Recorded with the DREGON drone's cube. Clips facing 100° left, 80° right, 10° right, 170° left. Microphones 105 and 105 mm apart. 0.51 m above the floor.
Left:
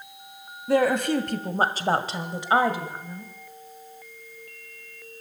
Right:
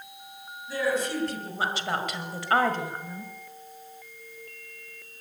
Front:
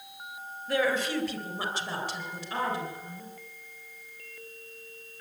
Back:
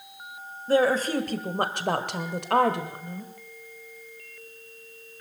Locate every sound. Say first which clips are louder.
0.7 s a woman speaking: left 7 dB, back 6 dB; 115° left, 3 m; by 3.3 s 165° right, 2.5 m